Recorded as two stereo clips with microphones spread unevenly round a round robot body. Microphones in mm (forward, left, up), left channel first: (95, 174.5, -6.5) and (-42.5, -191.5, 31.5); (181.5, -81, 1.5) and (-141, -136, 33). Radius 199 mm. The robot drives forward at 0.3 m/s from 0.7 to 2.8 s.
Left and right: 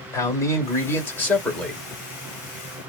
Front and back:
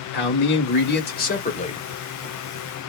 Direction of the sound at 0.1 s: Straight ahead.